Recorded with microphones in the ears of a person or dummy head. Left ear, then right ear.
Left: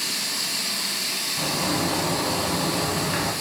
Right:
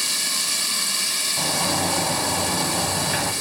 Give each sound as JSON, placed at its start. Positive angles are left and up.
{"t": 0.0, "sound": "running water", "side_deg": -70, "distance_m": 2.5}
{"t": 1.4, "sound": "a sliding door", "side_deg": -40, "distance_m": 1.8}